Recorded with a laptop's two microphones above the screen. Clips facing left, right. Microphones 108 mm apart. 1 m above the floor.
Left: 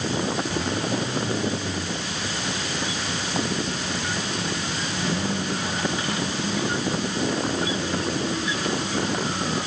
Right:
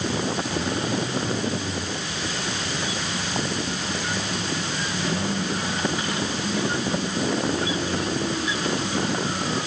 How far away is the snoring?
I don't hear snoring.